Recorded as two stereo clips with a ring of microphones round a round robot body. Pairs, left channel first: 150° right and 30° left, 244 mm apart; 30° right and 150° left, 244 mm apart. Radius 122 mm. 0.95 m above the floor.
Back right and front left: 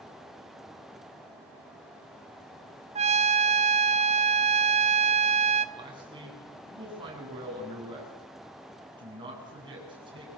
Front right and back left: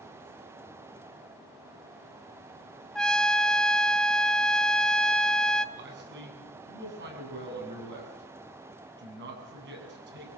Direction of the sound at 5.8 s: 100° left.